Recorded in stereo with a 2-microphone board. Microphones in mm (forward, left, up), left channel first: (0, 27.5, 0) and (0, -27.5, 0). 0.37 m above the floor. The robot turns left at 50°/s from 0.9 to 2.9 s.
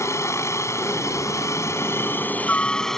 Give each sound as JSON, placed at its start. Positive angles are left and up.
{"t": 0.0, "sound": "a helicopter", "azimuth_deg": 110}